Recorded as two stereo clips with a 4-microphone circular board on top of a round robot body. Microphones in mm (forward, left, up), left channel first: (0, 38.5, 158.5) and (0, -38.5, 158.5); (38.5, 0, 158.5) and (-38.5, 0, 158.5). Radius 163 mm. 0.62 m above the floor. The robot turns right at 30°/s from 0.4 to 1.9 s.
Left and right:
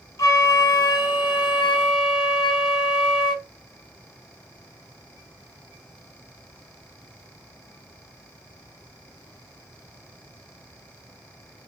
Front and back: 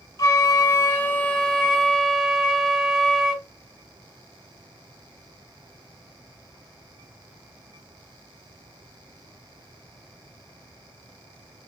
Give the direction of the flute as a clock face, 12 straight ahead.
11 o'clock.